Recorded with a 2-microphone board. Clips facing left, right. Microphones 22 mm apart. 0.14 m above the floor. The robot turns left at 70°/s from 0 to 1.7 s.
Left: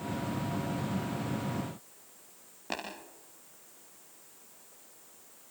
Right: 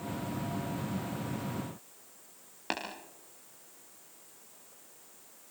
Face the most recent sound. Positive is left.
turn(degrees=-55)  # may be behind; listen again after turning